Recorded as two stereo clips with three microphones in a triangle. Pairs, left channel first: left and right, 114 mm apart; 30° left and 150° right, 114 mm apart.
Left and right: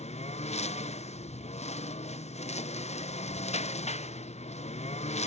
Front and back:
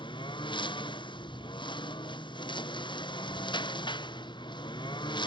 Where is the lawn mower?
75° left.